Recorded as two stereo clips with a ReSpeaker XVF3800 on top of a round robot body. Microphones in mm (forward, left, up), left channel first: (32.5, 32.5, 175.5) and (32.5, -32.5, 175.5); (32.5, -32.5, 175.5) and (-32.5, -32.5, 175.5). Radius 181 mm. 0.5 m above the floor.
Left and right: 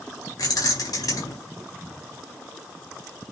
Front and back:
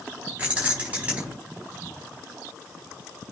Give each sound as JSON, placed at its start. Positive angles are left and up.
{"t": 0.4, "sound": "keys jangling", "azimuth_deg": 110, "distance_m": 4.0}